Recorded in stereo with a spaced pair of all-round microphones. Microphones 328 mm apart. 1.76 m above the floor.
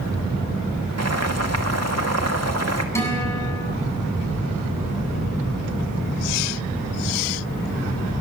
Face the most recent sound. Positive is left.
turn(degrees=10)  # may be behind; listen again after turning